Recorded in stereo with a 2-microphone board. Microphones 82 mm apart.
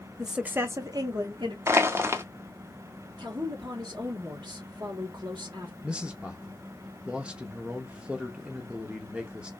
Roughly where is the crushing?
Right.